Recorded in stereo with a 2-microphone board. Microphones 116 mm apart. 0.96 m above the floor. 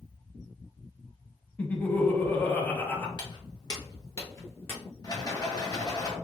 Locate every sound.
1.6 s laughter: 15° left (ahead or behind), 1.0 m
3.2 s footsteps: 40° left (ahead or behind), 1.2 m; by 4.8 s 20° left (ahead or behind), 1.4 m
5.0 s a rattle: 35° left (ahead or behind), 1.1 m